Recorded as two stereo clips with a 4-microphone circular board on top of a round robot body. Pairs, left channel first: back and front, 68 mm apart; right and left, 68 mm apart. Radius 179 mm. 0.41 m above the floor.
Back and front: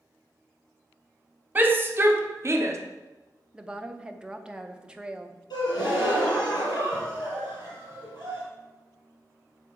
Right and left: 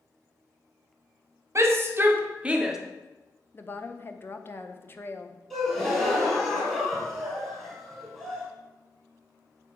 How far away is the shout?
About 1.3 m.